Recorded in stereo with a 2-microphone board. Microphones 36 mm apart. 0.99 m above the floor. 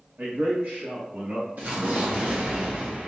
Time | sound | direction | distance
0.2 | a man speaking | 55° right (ahead or behind) | 0.6 m
1.6 | an explosion | 50° right (ahead or behind) | 0.9 m